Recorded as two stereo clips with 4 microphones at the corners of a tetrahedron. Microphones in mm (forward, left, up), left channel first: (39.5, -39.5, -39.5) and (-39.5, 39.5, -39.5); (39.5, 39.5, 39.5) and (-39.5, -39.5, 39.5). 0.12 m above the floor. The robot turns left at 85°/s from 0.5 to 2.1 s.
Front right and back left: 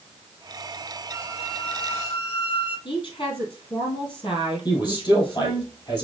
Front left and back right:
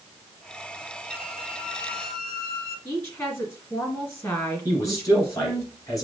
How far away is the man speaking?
About 1.9 m.